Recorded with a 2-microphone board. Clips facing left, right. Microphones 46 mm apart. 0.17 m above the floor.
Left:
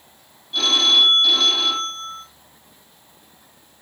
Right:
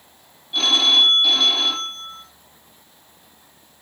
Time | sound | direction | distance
0.5 | a phone ringing | 15° right (ahead or behind) | 4 m